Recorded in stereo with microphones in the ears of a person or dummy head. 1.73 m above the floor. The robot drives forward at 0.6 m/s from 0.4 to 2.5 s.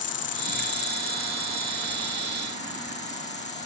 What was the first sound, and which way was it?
An insect, 40° left (ahead or behind).